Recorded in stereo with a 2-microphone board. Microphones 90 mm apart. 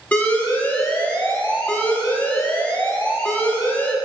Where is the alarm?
20° left (ahead or behind), 0.8 m.